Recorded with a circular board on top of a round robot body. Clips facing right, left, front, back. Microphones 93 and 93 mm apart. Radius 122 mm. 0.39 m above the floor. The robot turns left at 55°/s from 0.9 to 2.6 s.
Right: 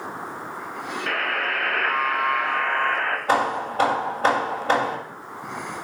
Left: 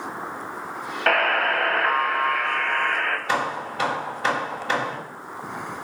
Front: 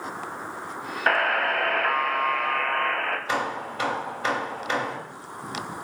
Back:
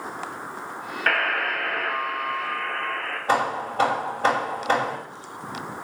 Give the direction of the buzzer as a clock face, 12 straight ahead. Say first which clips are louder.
Left 7 dB, front 2 dB; 10 o'clock.